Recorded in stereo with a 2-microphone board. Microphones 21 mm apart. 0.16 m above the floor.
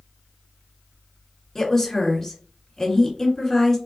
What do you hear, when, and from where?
1.6 s a woman speaking: 15° left (ahead or behind), 1.7 m